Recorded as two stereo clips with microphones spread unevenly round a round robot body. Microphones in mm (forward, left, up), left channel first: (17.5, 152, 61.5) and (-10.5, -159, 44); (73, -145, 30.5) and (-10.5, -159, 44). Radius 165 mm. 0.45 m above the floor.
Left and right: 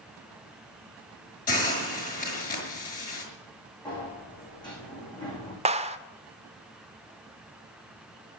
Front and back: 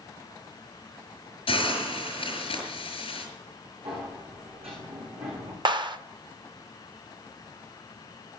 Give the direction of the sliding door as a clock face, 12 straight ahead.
7 o'clock.